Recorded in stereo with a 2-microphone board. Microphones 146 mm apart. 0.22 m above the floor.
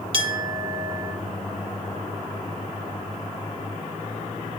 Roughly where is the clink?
Right.